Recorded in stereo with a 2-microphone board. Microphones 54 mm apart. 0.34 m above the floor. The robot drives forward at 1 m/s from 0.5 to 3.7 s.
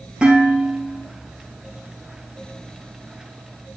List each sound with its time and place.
0.2 s dishes clattering: 15° right (ahead or behind), 4.5 m; by 1.0 s 20° right (ahead or behind), 4 m